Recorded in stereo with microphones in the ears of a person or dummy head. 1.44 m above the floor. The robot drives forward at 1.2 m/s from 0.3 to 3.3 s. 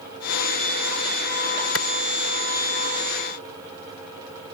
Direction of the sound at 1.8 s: 90° left.